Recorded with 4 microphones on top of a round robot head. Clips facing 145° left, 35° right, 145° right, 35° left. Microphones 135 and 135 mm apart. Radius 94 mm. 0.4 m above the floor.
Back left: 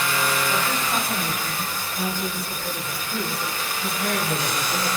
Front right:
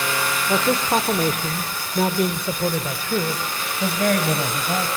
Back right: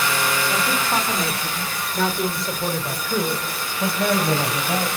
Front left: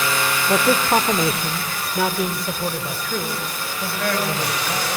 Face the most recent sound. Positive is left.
turn(degrees=-75)